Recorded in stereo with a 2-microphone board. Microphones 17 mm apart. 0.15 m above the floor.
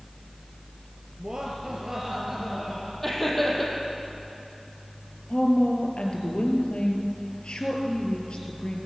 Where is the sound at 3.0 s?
10° left (ahead or behind), 6 m.